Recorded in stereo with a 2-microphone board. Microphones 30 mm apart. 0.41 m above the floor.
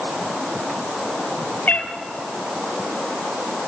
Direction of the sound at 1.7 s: 65° left (ahead or behind).